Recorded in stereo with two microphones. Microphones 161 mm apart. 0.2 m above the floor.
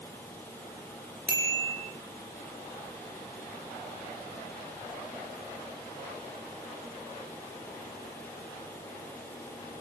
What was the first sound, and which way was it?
A bicycle bell, 75° right (ahead or behind).